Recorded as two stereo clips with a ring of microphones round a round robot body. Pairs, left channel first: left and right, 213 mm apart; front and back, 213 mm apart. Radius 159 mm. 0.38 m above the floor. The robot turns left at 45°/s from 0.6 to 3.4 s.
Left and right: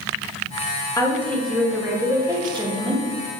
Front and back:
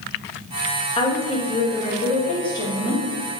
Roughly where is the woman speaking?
Ahead left.